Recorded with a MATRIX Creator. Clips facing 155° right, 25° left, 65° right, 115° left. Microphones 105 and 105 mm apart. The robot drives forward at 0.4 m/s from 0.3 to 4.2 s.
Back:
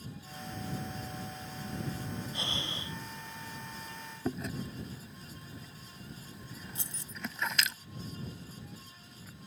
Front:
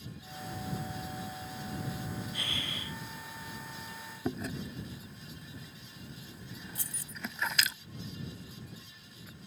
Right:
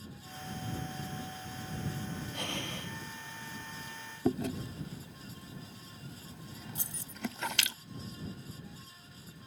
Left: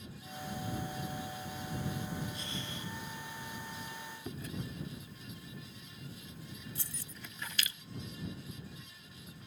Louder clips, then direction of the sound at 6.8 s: Back 1 dB, right 2 dB; 120° right.